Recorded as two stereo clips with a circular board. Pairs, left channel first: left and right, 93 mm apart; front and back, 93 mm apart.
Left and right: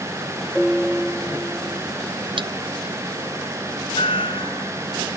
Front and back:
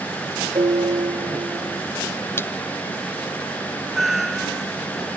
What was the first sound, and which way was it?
A piano, 175° right.